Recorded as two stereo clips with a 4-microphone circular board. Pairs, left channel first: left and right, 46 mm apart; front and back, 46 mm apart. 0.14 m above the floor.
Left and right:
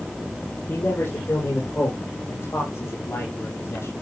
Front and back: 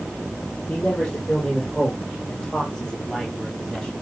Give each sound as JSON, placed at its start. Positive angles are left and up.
{"t": 0.7, "sound": "a man speaking", "azimuth_deg": 65, "distance_m": 4.5}